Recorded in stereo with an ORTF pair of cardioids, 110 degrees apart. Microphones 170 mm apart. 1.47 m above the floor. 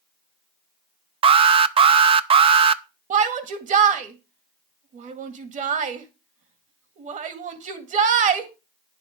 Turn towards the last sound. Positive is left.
turn(degrees=-50)